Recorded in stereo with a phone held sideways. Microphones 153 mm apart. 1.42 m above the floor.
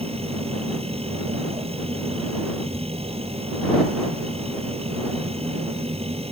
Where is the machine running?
40° right (ahead or behind).